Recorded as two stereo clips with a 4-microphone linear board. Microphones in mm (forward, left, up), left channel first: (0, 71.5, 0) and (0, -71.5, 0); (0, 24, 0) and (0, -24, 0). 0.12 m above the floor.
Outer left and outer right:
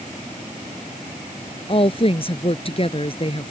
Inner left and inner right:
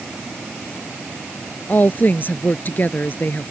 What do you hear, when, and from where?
1.7 s a woman speaking: 40° left (ahead or behind)